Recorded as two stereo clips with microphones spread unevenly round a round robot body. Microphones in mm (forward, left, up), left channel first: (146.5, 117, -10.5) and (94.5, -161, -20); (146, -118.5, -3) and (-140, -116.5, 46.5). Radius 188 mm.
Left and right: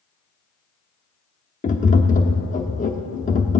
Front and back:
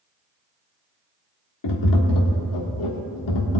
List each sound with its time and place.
1.6 s tapping: 15° left, 1.2 m